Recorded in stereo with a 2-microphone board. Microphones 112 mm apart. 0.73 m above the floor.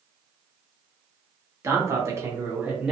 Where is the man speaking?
25° right (ahead or behind), 0.9 m; by 2.9 s 10° right (ahead or behind), 0.7 m.